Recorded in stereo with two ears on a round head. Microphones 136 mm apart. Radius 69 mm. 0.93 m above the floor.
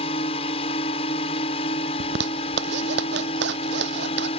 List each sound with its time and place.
0.0 s a drone: 40° left (ahead or behind)
2.0 s a zipper: 80° right